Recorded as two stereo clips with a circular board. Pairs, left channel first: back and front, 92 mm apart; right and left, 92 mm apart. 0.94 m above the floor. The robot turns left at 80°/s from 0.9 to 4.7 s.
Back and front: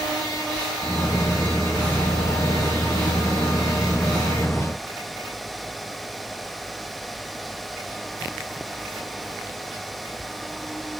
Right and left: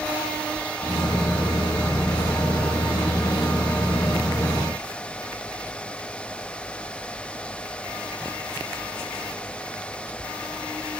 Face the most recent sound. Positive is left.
No sound to turn to.